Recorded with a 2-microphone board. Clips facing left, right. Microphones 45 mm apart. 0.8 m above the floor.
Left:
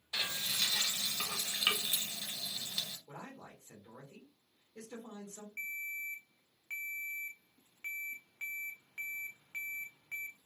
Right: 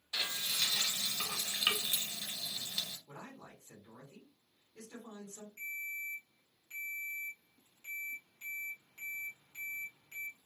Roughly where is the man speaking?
Left.